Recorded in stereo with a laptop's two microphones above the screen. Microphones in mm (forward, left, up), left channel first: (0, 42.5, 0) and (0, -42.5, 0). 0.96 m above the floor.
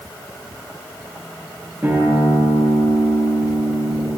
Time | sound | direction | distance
1.8 | a guitar | 25° right (ahead or behind) | 7 m